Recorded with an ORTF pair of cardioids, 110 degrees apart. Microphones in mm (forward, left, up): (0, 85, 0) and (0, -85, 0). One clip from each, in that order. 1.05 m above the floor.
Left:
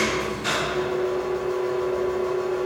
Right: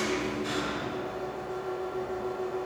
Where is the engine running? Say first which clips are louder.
Left 6 dB; 70° left, 1.8 m.